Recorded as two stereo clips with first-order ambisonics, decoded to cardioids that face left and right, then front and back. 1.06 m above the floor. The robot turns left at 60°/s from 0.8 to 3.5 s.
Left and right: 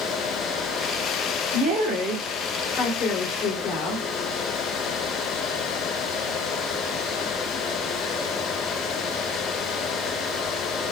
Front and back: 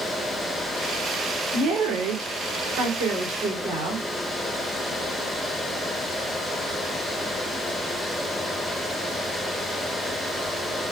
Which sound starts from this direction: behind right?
A woman speaking, at 1.5 s.